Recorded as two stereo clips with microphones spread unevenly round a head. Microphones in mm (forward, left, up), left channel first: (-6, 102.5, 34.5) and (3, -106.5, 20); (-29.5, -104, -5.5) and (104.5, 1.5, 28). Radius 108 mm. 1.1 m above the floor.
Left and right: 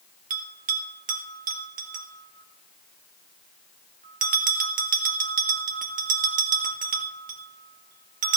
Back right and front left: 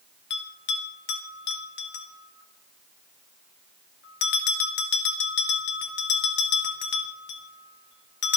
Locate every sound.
0.3 s a bell: 140° right, 2.5 m